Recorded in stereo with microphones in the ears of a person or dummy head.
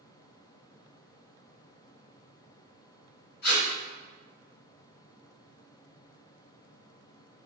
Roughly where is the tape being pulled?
Left.